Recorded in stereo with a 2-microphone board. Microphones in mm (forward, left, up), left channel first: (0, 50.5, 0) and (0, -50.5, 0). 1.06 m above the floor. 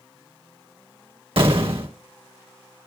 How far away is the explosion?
About 1.2 m.